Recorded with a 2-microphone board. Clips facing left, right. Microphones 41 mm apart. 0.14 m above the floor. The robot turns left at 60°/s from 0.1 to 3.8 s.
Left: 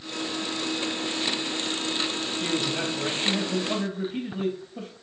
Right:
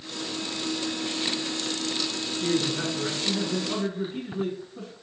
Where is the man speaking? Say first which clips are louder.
Right 2 dB; 150° left, 3 m; by 4.9 s 65° left, 3 m.